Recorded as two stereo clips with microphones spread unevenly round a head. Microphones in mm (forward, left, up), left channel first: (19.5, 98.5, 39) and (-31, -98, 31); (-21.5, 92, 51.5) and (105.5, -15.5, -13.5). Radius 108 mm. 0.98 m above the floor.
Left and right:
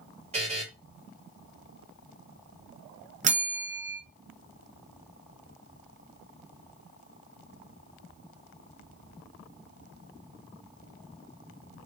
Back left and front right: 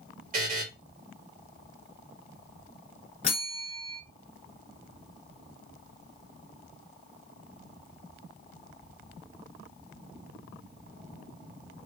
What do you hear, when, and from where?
0.3 s a buzzer: 50° right, 1.8 m
3.2 s a bell: 160° right, 0.6 m